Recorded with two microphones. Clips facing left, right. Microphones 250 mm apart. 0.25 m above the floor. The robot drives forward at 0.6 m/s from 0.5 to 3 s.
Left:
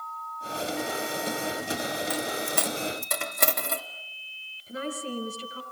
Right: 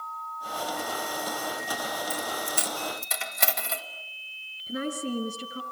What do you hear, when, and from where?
2.1 s a dropped coin: 80° left, 1.1 m; by 3.8 s 55° left (ahead or behind), 1.2 m
4.7 s a woman speaking: 30° right (ahead or behind), 4.5 m